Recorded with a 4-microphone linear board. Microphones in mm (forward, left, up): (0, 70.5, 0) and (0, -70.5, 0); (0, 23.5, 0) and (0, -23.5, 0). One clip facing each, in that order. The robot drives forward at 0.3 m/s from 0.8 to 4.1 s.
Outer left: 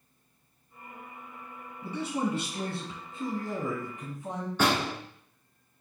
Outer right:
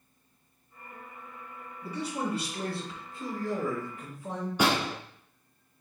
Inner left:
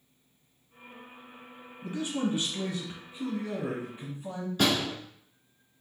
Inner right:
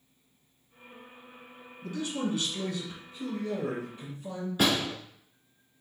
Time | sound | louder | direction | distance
1.8 | a man speaking | outer left 2 dB, inner left 1 dB | 25° left (ahead or behind) | 1.2 m
4.6 | a door slam | even, even | 15° right (ahead or behind) | 1.6 m